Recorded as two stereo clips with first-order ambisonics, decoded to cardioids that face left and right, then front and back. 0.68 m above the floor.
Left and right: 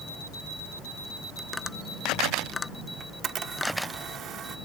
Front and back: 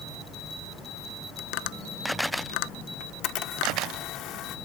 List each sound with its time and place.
1.4 s tapping: 10° left
3.0 s a camera shutter: 35° right